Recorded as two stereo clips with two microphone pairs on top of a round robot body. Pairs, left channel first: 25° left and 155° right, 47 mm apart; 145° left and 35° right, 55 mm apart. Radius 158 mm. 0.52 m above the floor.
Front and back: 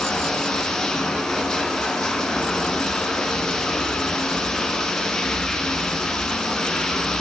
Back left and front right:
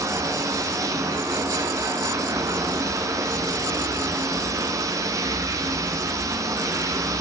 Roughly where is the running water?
Ahead right.